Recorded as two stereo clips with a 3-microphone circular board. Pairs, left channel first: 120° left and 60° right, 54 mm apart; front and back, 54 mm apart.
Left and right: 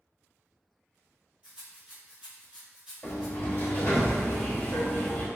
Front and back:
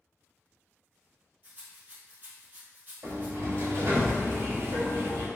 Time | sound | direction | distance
1.4 | a rattle | 125° right | 1.1 m
3.0 | a sliding door | 170° left | 0.9 m